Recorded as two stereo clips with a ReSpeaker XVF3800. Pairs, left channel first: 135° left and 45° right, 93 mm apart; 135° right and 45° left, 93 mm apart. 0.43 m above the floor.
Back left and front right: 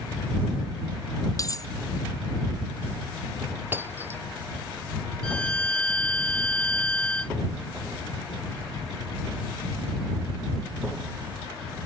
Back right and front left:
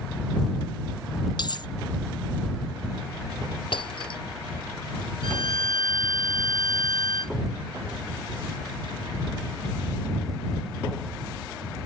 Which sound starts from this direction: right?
Breaking glass, at 3.7 s.